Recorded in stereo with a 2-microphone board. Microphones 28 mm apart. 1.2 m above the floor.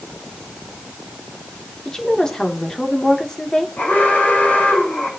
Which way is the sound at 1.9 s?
25° left (ahead or behind).